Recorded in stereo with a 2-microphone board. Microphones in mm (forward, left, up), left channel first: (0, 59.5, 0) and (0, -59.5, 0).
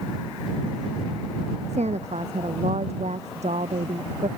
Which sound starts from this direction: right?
A woman speaking, at 1.7 s.